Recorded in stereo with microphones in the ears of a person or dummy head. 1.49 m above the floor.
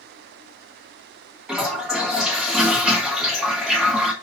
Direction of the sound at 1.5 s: 5° right (ahead or behind).